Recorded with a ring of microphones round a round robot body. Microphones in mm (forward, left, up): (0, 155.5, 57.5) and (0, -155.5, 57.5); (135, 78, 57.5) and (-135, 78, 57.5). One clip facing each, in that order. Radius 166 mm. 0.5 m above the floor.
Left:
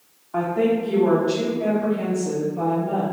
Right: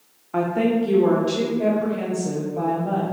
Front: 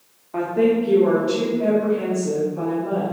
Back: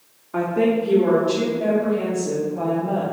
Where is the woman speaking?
115° right, 0.9 m; by 3.0 s 80° right, 3.5 m.